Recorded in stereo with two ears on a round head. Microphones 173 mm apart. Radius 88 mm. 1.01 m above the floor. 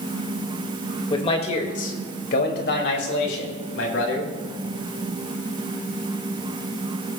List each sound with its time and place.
1.1 s a man speaking: 25° left (ahead or behind), 1.7 m; by 4.3 s 75° left (ahead or behind), 3 m